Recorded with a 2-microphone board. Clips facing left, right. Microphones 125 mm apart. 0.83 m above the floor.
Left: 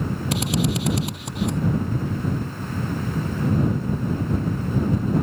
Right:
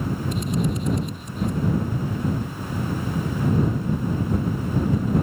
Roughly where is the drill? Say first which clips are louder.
Left 3 dB; left.